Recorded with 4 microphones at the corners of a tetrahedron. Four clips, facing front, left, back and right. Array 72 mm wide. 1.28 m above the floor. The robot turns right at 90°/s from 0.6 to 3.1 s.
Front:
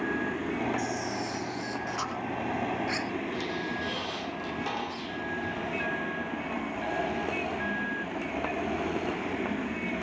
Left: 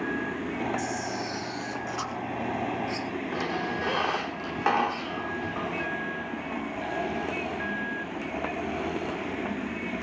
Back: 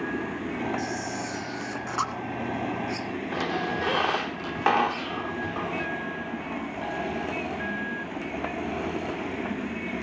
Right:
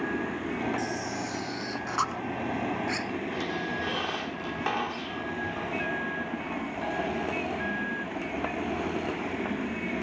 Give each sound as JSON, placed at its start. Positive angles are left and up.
{"t": 0.8, "sound": "a camera shutter", "azimuth_deg": 115, "distance_m": 2.0}
{"t": 3.3, "sound": "a squeak", "azimuth_deg": 160, "distance_m": 1.8}